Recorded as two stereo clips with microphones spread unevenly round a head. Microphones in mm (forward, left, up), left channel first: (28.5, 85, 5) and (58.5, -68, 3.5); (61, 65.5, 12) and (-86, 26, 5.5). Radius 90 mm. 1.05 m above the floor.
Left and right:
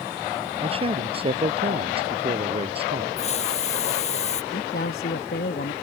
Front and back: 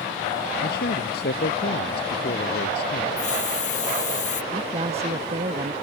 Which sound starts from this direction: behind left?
A man speaking, at 4.5 s.